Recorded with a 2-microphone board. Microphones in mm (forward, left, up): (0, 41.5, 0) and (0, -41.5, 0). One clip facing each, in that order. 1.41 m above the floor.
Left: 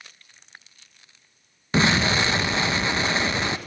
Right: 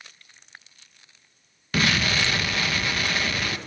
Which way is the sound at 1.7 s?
25° left (ahead or behind).